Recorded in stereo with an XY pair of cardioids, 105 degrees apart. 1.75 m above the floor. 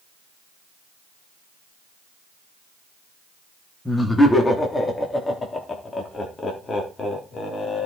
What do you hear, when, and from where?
3.9 s laughter: 10° left, 3 m; by 7.8 s 50° left, 4 m